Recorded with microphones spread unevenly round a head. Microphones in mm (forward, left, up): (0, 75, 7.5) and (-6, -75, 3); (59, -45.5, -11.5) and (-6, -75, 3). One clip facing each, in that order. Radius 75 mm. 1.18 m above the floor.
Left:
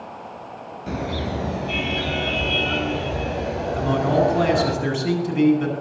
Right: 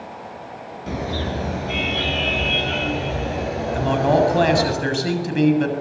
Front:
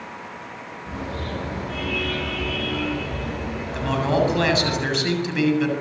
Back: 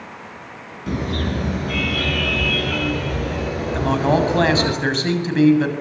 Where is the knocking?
I don't hear knocking.